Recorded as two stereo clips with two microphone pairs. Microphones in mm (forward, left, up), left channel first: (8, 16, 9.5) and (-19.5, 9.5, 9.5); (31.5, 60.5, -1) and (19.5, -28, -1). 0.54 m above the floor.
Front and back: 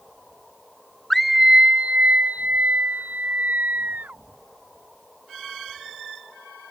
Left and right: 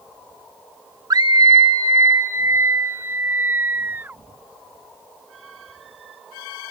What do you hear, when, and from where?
1.1 s a scream: 70° right; by 4.2 s 165° right